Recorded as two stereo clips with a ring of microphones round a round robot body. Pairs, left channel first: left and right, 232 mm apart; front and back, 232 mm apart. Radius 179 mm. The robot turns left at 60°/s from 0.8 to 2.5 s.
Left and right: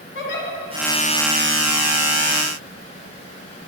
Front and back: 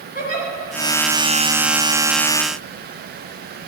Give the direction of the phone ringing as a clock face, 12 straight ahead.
No phone ringing in this recording.